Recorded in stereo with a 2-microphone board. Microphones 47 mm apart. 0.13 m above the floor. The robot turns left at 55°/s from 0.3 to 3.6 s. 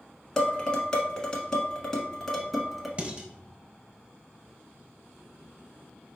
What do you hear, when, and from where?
0.4 s dishes clattering: 15° left (ahead or behind), 0.8 m; by 2.9 s 5° right (ahead or behind), 0.8 m
3.0 s dishes clattering: 35° right (ahead or behind), 1.2 m; by 3.3 s 20° right (ahead or behind), 1.2 m